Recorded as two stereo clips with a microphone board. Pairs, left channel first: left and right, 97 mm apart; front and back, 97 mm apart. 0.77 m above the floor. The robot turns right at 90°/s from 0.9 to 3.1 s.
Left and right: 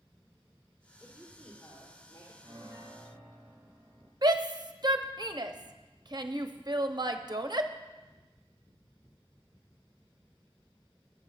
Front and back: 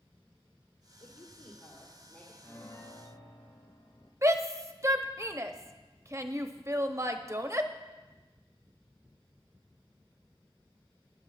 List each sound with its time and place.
1.0 s a woman speaking: 30° right, 2.5 m; by 2.3 s 90° left, 2.5 m
2.4 s a piano: 65° right, 2.5 m; by 4.1 s 5° right, 2.5 m
4.2 s a shout: 125° right, 0.8 m